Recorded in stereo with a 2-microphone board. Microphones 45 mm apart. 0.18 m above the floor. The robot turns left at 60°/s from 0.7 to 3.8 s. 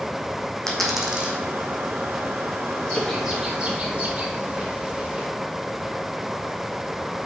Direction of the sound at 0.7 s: 10° left (ahead or behind).